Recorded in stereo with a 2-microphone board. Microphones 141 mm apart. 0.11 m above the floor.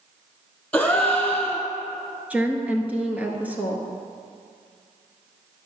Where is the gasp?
5° left (ahead or behind), 1.8 m.